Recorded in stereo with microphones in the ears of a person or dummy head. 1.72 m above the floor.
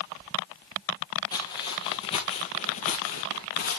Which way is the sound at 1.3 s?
20° left (ahead or behind).